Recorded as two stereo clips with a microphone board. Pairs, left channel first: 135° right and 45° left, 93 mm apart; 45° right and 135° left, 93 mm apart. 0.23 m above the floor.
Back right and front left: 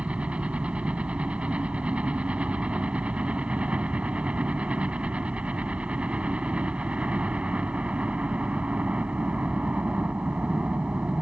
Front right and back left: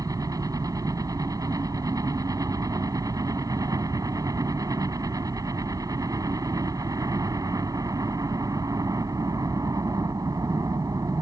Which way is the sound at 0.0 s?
115° left.